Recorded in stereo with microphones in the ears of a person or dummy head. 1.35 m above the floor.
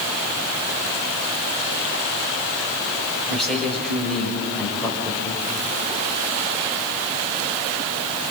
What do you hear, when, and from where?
3.3 s a man speaking: centre (ahead or behind), 7.5 m